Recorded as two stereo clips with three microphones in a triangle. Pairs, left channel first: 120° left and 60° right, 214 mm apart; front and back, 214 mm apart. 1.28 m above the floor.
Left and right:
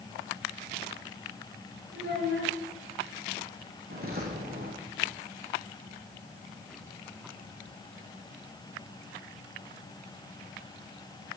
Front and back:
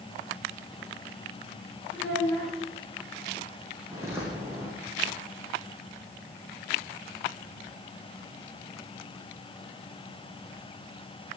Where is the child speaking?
85° right, 9 m.